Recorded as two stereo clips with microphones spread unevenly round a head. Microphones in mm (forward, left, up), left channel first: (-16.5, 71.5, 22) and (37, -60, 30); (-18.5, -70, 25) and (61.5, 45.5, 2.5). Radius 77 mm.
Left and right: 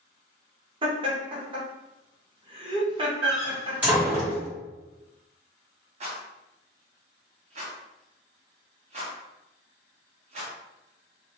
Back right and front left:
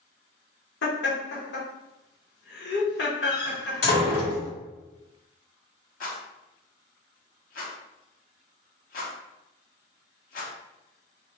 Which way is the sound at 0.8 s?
125° right.